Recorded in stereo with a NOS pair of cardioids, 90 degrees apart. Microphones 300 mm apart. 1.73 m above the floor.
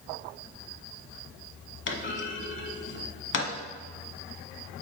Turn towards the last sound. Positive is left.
turn(degrees=40)